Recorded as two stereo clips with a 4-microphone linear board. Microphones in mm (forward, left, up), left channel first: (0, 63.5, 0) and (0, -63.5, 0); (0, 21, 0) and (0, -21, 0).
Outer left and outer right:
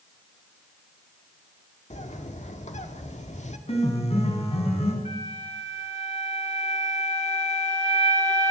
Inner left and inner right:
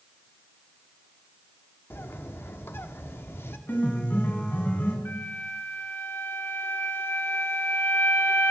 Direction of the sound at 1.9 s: 60° left (ahead or behind).